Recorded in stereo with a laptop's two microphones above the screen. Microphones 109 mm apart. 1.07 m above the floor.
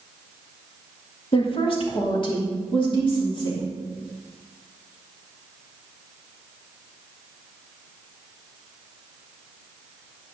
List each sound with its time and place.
1.3 s a woman speaking: 55° left (ahead or behind), 1.7 m; by 3.7 s 45° left (ahead or behind), 3.5 m